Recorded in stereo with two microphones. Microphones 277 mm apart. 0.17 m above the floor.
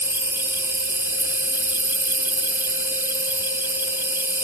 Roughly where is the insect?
Centre.